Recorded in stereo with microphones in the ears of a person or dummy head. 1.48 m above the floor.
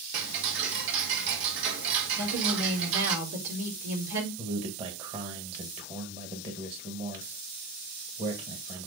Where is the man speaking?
35° right (ahead or behind), 1.5 m.